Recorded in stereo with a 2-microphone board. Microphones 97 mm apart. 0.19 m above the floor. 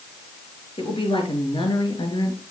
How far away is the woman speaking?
About 3.5 m.